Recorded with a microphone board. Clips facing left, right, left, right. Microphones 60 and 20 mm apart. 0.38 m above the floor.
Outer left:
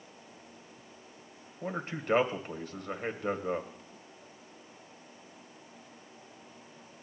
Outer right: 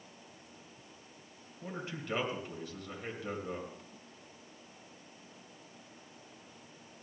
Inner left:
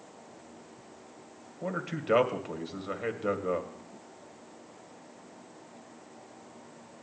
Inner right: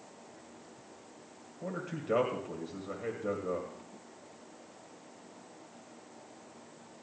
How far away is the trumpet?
I don't hear a trumpet.